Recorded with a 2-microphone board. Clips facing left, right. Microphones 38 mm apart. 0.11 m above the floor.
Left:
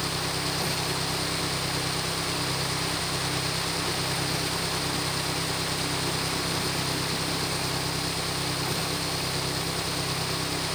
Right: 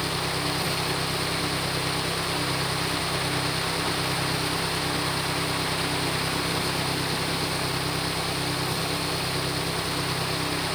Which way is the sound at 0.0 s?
10° right (ahead or behind).